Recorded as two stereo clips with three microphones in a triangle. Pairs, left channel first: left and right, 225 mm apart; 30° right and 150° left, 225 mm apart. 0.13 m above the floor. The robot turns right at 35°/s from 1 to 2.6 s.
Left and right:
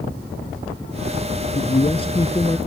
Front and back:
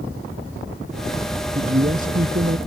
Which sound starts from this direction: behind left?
A man speaking, at 1.6 s.